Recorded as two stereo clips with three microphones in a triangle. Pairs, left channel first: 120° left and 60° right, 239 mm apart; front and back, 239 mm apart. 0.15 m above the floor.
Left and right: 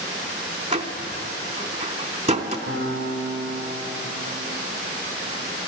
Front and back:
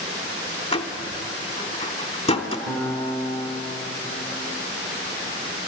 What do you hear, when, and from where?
0.7 s a door slam: 35° right, 0.8 m
2.7 s a guitar: 105° right, 4.5 m